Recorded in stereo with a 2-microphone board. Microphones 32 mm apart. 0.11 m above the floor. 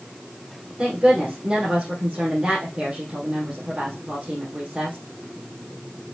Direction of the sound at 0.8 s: 30° right (ahead or behind).